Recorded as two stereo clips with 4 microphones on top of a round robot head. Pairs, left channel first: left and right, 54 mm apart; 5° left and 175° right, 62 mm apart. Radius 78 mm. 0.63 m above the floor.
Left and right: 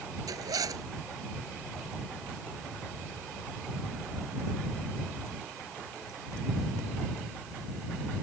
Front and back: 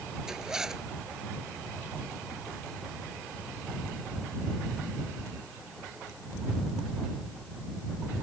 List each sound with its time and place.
0.3 s a zipper: 90° right